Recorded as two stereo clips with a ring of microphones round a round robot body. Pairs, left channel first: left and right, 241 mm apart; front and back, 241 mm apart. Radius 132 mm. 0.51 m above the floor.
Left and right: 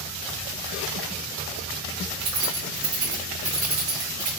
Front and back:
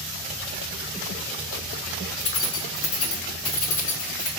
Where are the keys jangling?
40° right, 0.7 m; by 4.3 s 25° right, 1.7 m.